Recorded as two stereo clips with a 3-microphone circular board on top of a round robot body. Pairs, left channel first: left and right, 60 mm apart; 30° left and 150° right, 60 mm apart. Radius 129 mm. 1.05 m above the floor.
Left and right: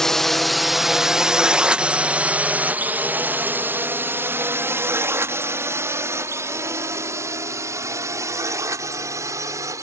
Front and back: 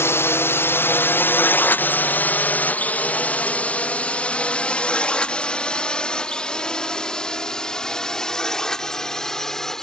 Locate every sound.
0.0 s a drone: 10° left; by 9.8 s 50° right